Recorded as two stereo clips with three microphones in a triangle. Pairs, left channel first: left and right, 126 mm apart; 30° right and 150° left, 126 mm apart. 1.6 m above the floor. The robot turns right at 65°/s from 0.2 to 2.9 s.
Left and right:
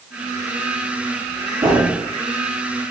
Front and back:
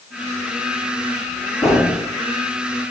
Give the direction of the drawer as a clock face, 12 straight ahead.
3 o'clock.